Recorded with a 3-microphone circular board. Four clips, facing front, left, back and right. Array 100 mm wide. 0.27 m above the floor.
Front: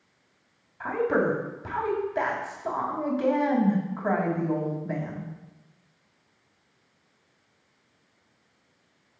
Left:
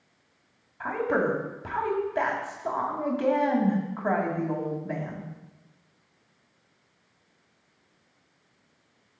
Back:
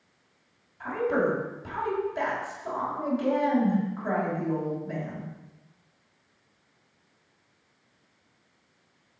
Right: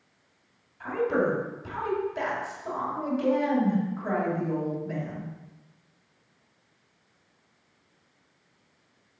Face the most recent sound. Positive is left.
turn(degrees=55)